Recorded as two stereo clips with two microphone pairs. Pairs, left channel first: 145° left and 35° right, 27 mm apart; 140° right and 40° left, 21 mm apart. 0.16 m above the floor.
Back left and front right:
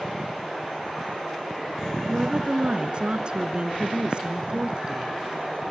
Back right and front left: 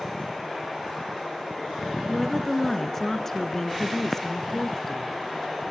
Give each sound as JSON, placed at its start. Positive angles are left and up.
{"t": 2.1, "sound": "a woman speaking", "azimuth_deg": -70, "distance_m": 2.0}